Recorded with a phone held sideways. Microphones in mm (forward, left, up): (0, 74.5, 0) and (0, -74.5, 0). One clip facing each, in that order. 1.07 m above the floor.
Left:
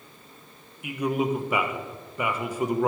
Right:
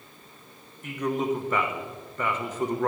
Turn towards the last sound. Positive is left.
turn(degrees=10)  # may be behind; listen again after turning